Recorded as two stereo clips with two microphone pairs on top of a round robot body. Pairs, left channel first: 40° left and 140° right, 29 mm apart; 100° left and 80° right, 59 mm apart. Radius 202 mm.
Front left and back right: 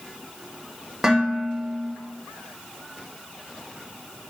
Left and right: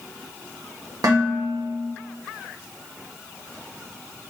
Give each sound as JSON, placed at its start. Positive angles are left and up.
{"t": 1.0, "sound": "dishes clattering", "azimuth_deg": -70, "distance_m": 3.0}